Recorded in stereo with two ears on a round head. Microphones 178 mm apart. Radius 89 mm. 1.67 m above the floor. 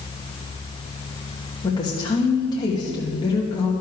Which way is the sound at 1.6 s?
20° left (ahead or behind).